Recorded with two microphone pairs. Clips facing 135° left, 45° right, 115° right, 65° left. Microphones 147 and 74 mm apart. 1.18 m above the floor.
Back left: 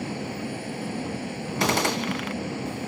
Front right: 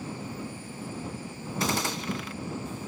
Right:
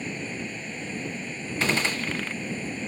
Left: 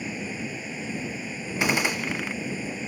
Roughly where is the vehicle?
Behind left.